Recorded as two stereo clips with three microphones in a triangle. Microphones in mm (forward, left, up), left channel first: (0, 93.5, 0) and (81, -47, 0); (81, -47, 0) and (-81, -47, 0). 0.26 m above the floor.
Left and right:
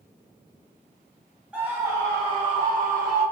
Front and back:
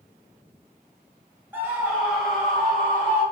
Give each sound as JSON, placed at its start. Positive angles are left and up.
{"t": 1.5, "sound": "a scream", "azimuth_deg": -130, "distance_m": 1.0}